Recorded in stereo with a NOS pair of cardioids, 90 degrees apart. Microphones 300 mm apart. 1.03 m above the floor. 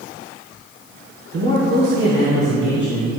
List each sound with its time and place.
1.3 s a man speaking: 50° right, 2.5 m; by 3.1 s 40° right, 4.5 m